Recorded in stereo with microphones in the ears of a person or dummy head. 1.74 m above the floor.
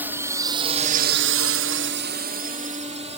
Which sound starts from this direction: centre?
A drone, at 0.0 s.